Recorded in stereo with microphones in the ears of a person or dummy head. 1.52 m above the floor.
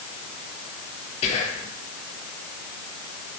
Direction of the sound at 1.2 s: 35° left (ahead or behind).